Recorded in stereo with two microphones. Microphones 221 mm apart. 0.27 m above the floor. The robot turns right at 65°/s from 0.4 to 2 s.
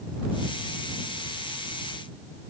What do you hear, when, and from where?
Only background noise.